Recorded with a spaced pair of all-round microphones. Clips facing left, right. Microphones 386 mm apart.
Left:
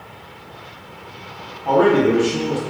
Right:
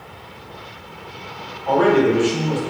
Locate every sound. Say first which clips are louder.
1.6 s a man speaking: left 1 dB; 55° left (ahead or behind), 1.0 m